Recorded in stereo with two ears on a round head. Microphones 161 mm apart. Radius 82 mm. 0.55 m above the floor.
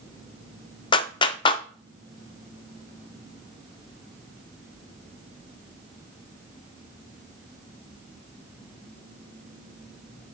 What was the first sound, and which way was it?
A clap, 25° left (ahead or behind).